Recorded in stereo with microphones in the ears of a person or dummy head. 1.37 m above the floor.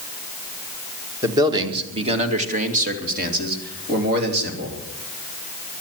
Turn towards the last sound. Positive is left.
turn(degrees=-60)  # may be behind; listen again after turning